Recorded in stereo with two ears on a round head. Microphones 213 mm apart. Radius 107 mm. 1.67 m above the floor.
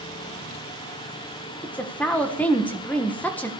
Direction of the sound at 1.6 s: 5° left (ahead or behind).